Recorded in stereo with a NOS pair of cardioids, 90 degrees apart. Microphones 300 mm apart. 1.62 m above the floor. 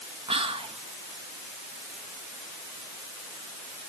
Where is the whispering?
20° right, 2.0 m.